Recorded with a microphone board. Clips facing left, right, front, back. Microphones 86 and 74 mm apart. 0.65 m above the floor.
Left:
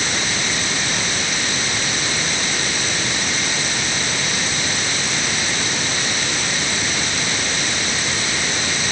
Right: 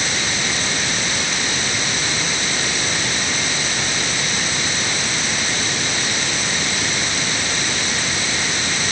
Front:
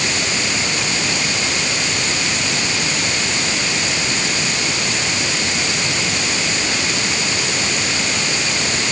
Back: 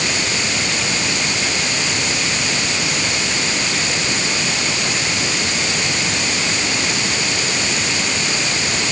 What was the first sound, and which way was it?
Only background noise.